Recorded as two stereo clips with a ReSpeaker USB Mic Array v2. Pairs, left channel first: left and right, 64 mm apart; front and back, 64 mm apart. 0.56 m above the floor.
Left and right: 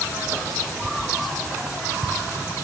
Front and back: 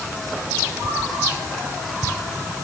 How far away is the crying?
No crying in this recording.